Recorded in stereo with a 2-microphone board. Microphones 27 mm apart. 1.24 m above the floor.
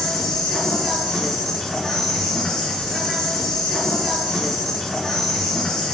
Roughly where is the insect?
Left.